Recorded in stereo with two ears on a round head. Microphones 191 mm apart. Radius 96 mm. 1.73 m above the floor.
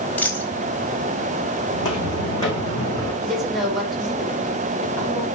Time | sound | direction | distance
0.2 | a dropped coin | 10° left (ahead or behind) | 4 m
1.7 | footsteps | 20° left (ahead or behind) | 5 m
3.2 | a woman speaking | centre (ahead or behind) | 5.5 m